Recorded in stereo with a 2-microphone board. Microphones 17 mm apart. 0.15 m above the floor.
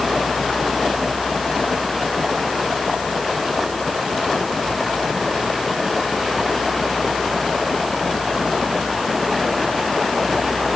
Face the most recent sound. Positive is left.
No sound to turn to.